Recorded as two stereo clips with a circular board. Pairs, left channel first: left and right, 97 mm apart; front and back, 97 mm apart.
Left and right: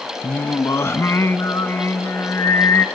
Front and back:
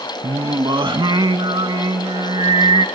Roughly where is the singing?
Behind left.